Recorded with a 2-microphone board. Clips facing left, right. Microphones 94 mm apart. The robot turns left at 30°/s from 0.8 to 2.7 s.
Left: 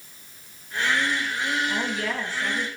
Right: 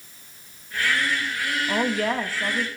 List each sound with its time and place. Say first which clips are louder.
1.7 s a woman speaking: right 4 dB; 55° right (ahead or behind), 1.3 m; by 2.7 s 30° right (ahead or behind), 1.3 m